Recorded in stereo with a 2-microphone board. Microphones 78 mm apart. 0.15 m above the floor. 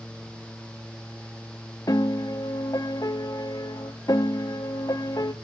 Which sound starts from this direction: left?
A piano, at 1.9 s.